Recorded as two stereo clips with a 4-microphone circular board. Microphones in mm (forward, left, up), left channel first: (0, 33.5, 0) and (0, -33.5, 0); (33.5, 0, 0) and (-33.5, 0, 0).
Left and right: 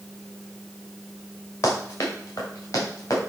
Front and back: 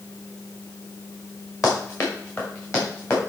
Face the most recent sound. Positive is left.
turn(degrees=50)